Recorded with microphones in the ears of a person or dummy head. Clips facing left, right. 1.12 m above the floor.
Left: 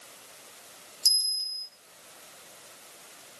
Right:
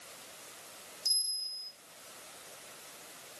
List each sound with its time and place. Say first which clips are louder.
1.1 s a bell: left 4 dB; 60° left (ahead or behind), 4 m